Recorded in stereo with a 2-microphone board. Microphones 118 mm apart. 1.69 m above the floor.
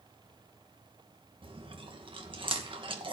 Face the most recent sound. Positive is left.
turn(degrees=-45)  # may be behind; listen again after turning